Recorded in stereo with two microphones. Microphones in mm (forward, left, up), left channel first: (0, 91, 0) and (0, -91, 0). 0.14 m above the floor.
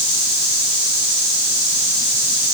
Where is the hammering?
No hammering in this recording.